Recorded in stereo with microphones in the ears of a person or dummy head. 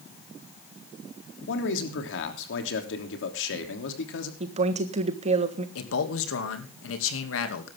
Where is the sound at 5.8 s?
85° left, 2.5 m.